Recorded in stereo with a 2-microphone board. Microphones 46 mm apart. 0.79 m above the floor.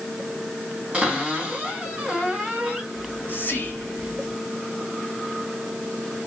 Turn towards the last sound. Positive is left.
turn(degrees=40)  # may be behind; listen again after turning